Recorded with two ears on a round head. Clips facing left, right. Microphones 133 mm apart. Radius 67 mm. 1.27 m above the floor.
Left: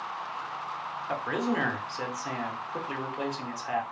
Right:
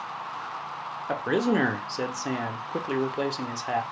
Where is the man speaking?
40° right (ahead or behind), 0.6 m.